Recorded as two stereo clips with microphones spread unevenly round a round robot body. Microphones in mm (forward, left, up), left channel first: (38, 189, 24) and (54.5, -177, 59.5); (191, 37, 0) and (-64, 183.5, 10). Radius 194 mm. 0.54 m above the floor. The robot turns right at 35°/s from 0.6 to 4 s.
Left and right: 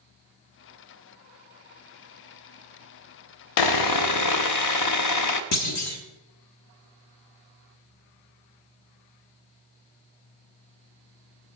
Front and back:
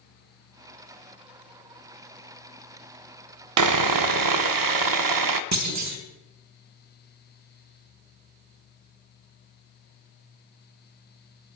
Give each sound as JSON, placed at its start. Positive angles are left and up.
{"t": 3.6, "sound": "sawing", "azimuth_deg": 120, "distance_m": 0.6}
{"t": 5.5, "sound": "a clunk", "azimuth_deg": 130, "distance_m": 1.2}